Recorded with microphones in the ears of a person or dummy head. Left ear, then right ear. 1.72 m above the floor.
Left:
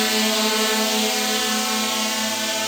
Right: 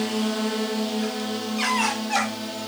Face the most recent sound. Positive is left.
turn(degrees=55)  # may be behind; listen again after turning